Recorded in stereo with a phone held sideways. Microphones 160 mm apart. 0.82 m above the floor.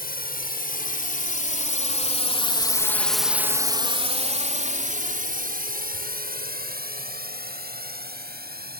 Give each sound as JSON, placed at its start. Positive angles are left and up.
{"t": 0.0, "sound": "a drone", "side_deg": 70}